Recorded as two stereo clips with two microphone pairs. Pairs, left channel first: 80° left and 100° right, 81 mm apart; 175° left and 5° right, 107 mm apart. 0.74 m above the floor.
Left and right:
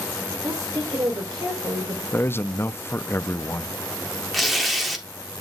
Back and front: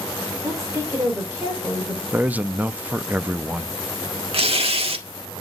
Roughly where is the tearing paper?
Ahead.